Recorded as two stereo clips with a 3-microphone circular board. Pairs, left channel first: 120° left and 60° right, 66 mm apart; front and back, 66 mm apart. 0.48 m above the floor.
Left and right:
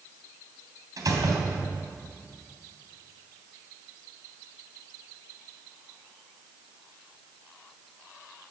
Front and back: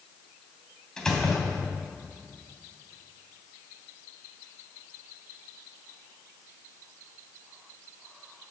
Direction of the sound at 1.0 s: 80° right.